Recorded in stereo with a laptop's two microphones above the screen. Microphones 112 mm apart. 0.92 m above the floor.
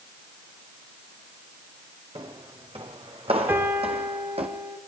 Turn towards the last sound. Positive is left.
turn(degrees=-20)  # may be behind; listen again after turning